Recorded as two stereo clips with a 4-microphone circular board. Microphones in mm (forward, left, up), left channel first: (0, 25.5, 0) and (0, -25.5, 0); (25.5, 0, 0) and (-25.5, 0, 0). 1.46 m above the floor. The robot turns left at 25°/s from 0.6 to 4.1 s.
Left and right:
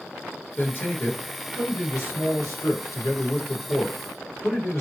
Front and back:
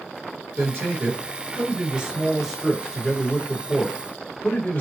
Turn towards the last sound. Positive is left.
turn(degrees=55)